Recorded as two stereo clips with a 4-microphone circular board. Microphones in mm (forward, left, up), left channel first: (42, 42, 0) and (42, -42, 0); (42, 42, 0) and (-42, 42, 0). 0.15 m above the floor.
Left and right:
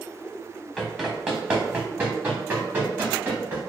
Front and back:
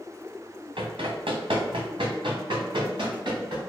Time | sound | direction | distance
0.8 | running footsteps | straight behind | 1.3 m